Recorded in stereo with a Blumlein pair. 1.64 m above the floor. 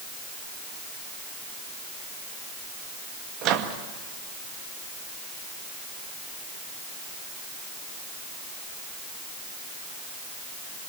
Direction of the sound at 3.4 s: 35° right.